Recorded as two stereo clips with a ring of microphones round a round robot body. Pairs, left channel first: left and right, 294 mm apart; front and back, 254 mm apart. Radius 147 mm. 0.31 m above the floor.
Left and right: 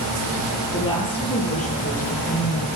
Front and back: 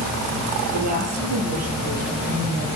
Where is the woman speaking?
165° left, 6 m; by 2.7 s 150° left, 7.5 m.